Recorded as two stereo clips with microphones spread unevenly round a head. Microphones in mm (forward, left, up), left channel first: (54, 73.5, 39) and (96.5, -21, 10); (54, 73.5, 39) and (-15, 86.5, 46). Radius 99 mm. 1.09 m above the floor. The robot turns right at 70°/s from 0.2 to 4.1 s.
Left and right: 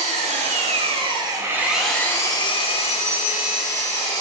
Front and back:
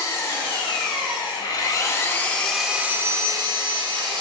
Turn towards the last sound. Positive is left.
turn(degrees=-175)